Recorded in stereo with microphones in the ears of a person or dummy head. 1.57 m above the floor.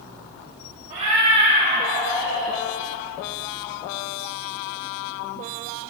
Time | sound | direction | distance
0.9 | a cat meowing | 40° right (ahead or behind) | 2.5 m